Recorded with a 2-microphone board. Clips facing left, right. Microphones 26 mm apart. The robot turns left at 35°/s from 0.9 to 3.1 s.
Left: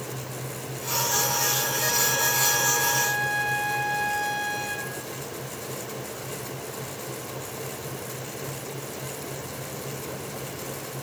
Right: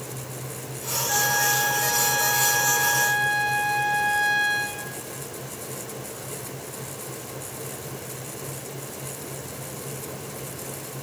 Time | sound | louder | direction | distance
1.1 | a flute | right 5 dB | 80° right | 2 m